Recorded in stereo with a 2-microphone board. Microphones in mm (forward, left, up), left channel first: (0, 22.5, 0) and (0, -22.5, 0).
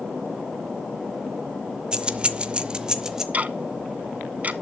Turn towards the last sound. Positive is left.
turn(degrees=-35)  # may be behind; listen again after turning